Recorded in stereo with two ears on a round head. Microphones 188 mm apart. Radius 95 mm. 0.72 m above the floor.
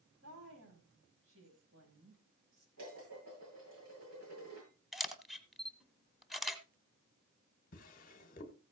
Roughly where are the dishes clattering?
Right.